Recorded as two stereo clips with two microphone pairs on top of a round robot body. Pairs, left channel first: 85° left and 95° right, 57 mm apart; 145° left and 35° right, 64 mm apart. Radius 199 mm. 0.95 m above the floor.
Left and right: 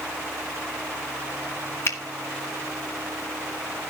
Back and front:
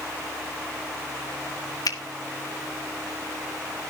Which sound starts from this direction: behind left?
A finger snap, at 1.9 s.